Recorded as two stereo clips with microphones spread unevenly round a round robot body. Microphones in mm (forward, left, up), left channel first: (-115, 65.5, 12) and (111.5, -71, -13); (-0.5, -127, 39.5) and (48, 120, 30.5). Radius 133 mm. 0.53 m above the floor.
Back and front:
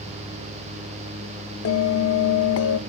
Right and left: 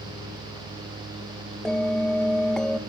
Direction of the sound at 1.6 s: 170° left.